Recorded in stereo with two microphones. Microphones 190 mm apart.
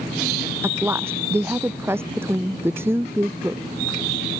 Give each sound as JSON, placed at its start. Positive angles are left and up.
{"t": 0.6, "sound": "a woman speaking", "side_deg": -15}